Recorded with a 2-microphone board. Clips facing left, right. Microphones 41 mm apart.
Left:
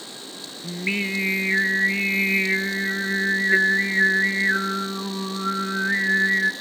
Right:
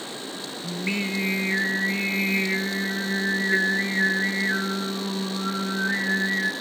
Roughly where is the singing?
Left.